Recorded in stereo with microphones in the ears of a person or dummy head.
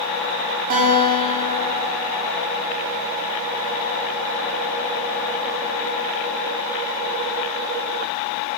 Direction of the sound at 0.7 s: 45° right (ahead or behind).